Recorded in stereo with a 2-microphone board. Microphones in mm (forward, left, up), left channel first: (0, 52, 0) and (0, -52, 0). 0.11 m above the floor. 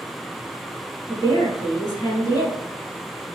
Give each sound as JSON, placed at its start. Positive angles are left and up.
{"t": 1.1, "sound": "a woman speaking", "side_deg": 40, "distance_m": 1.7}